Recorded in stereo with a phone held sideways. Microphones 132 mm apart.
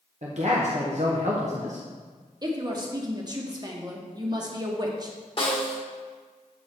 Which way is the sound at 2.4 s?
30° right (ahead or behind).